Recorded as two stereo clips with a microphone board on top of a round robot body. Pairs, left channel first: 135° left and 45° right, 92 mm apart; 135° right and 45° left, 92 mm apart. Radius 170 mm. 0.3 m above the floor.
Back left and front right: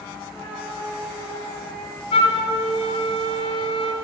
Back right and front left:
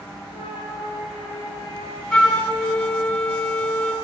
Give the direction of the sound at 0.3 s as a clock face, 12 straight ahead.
5 o'clock.